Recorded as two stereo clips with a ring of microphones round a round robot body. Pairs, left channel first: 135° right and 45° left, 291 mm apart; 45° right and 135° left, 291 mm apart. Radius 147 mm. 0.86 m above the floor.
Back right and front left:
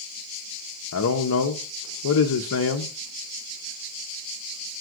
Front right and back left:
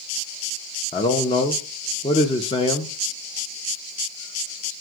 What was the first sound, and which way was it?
A man speaking, 115° right.